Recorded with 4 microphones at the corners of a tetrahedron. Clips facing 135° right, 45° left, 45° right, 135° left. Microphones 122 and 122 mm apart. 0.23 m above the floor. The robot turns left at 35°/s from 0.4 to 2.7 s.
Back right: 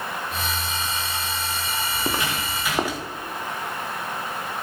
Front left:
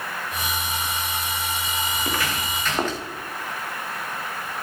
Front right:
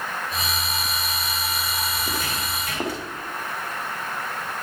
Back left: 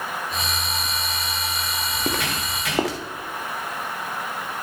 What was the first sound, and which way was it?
Footsteps, 160° left.